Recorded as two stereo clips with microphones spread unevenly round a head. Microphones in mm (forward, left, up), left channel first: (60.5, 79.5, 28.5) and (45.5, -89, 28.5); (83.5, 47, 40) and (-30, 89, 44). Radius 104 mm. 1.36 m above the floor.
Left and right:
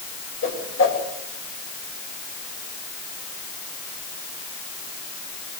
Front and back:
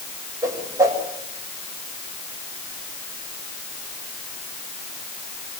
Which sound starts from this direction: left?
A whoosh, at 0.4 s.